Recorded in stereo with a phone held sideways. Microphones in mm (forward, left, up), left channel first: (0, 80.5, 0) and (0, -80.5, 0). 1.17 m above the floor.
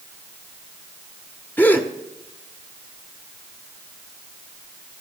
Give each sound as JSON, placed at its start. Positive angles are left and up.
{"t": 1.6, "sound": "a gasp", "side_deg": 10, "distance_m": 0.9}